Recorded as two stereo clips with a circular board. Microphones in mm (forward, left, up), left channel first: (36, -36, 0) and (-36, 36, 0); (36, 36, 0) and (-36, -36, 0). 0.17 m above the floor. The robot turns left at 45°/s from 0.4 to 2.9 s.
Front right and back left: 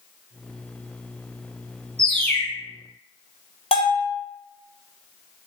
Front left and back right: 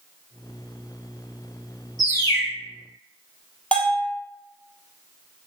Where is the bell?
30° right, 0.9 m.